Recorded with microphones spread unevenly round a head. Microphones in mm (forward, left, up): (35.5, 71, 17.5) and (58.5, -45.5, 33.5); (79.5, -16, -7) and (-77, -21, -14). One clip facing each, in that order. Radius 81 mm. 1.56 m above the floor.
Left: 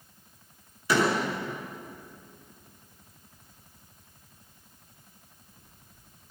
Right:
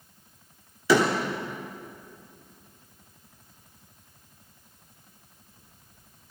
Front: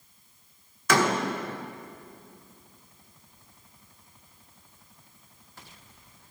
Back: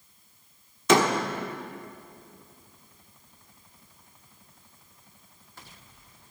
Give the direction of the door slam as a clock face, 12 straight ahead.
4 o'clock.